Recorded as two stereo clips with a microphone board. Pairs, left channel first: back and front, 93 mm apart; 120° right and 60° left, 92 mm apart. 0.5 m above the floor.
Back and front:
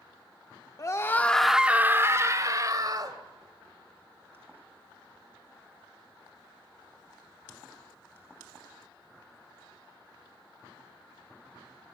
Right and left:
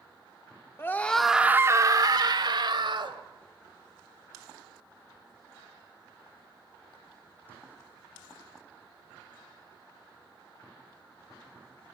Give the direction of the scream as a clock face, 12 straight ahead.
5 o'clock.